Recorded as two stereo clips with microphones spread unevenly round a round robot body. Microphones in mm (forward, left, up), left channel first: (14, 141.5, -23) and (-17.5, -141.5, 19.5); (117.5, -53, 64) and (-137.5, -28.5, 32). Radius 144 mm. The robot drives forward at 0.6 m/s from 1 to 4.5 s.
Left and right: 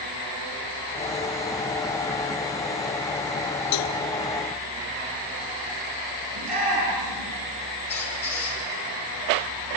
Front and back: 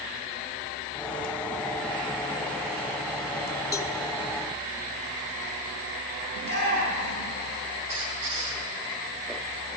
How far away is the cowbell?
About 1.1 m.